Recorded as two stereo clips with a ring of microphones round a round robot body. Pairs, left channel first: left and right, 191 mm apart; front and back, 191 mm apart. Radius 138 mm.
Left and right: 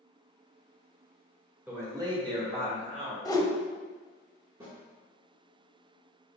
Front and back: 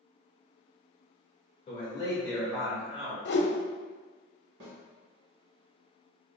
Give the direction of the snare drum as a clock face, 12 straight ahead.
6 o'clock.